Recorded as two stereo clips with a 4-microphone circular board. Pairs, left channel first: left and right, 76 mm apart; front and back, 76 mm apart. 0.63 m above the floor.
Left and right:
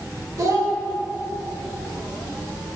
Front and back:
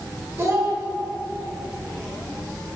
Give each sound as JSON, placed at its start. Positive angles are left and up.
{"t": 0.4, "sound": "a child speaking", "azimuth_deg": -130, "distance_m": 1.6}